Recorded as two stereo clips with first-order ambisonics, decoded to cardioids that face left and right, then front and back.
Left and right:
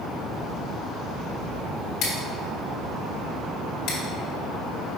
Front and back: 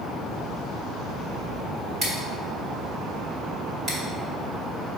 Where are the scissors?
120° left, 1.5 m.